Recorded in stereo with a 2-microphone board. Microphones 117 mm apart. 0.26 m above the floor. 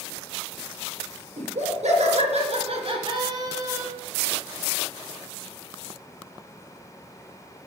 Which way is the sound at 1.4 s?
75° right (ahead or behind).